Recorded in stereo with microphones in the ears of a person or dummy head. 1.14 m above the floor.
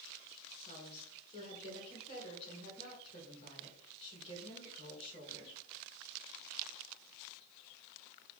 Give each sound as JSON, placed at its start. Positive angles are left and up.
{"t": 0.6, "sound": "a woman speaking", "side_deg": 30, "distance_m": 3.5}